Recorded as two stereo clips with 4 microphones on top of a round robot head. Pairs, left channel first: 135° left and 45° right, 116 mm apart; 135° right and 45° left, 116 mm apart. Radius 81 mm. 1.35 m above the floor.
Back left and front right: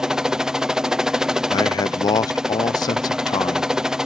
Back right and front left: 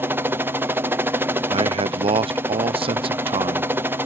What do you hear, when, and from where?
0.0 s a helicopter: 30° left
1.5 s a man speaking: 80° left